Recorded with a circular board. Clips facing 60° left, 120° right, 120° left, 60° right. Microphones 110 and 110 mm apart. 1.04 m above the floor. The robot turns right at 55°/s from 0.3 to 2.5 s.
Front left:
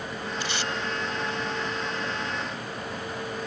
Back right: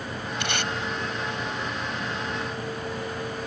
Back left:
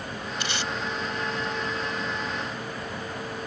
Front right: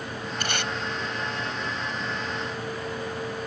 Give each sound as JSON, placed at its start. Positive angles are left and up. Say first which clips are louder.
{"t": 0.4, "sound": "tape being pulled", "louder": "back right 3 dB, front right 2 dB", "azimuth_deg": -100}